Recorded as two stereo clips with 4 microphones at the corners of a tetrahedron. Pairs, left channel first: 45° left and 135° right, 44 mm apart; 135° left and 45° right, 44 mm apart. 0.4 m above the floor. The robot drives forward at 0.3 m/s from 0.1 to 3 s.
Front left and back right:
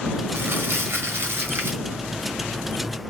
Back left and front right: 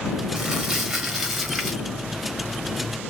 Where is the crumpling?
120° right, 1.4 m; by 1.8 s 140° right, 1.6 m.